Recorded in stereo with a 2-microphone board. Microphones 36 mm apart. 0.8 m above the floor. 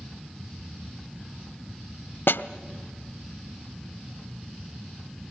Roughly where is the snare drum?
Left.